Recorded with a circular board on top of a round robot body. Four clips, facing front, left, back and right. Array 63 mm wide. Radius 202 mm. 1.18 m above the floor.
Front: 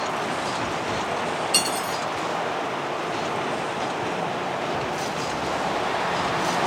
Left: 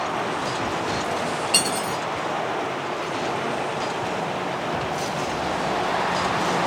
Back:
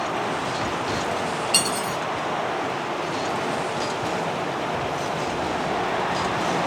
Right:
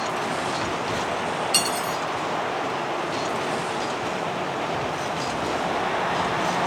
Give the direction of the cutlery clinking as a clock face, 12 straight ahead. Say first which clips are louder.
Left 1 dB, back 1 dB; 8 o'clock.